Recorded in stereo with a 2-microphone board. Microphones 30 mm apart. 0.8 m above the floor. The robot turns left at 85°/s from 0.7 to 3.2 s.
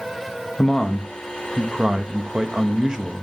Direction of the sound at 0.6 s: 50° left.